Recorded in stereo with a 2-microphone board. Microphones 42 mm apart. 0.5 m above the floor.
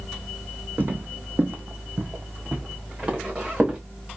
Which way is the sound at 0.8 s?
45° right (ahead or behind).